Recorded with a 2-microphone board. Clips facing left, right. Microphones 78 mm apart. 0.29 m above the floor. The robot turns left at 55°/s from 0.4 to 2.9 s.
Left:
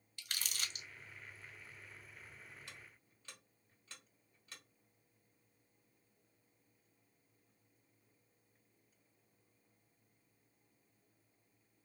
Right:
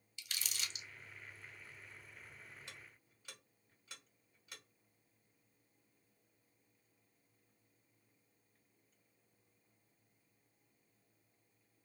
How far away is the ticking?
About 2 m.